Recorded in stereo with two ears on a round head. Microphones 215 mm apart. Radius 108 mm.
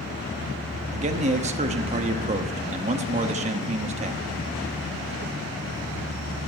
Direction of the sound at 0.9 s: 30° right (ahead or behind).